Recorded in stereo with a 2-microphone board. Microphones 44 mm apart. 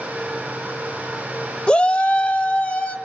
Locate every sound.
1.7 s a shout: 25° left (ahead or behind), 1.1 m; by 3.0 s 30° left (ahead or behind), 3 m